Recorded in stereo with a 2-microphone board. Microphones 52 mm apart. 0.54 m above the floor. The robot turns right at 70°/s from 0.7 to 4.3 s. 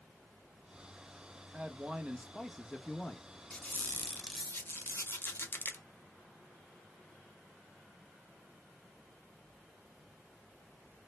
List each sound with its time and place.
1.5 s a man speaking: 25° right (ahead or behind), 0.7 m; by 3.3 s 20° left (ahead or behind), 0.7 m
3.5 s a squeak: 30° left, 0.6 m; by 5.8 s 90° left, 0.6 m